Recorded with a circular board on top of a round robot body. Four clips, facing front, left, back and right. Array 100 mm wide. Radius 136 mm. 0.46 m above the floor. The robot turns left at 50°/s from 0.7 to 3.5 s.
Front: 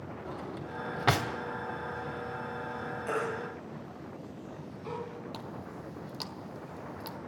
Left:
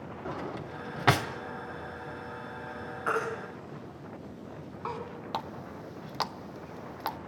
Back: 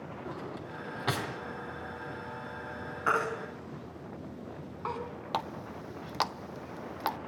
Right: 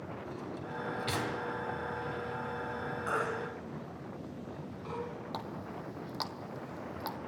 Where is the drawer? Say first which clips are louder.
Left 7 dB, front 1 dB; 85° left, 1.8 m; by 1.3 s 55° left, 1.8 m.